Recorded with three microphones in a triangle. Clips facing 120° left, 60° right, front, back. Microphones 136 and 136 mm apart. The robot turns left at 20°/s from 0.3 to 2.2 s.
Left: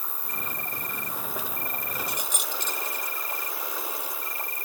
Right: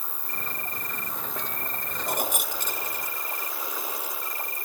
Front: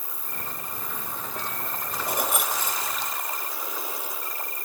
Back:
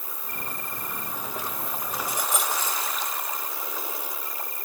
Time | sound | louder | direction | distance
0.0 | an insect | left 1 dB, back 1 dB | 70° right | ?
2.1 | keys jangling | right 5 dB, front 3 dB | 25° right | ?